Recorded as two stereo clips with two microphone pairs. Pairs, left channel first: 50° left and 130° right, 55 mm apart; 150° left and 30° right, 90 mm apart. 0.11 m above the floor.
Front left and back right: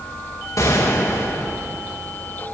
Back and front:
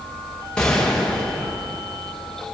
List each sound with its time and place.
0.6 s a gunshot: 70° left, 8.5 m